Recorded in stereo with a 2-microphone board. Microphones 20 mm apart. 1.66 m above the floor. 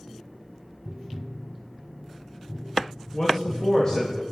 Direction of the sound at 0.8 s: 10° right (ahead or behind).